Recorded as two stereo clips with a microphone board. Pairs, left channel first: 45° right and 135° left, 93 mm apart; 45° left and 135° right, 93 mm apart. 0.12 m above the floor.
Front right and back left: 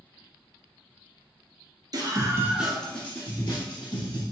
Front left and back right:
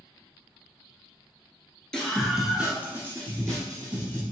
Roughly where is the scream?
Behind left.